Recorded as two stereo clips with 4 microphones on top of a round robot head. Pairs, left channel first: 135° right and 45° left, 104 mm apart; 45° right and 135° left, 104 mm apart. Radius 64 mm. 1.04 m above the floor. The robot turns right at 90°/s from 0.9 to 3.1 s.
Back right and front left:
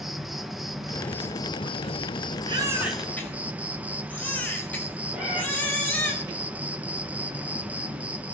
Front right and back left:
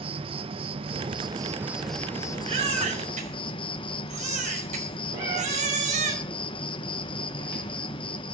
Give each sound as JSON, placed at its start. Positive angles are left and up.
{"t": 0.0, "sound": "an insect", "azimuth_deg": 135, "distance_m": 1.4}
{"t": 2.5, "sound": "a baby crying", "azimuth_deg": 95, "distance_m": 4.5}
{"t": 5.1, "sound": "a cat meowing", "azimuth_deg": 125, "distance_m": 7.5}